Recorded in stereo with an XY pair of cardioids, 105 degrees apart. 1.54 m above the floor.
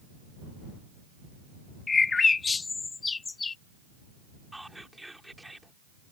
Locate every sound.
1.9 s a bird: 30° left
4.5 s whispering: 5° right